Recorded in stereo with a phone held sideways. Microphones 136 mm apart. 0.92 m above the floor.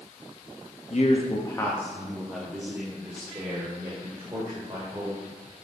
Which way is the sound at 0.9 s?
55° left (ahead or behind).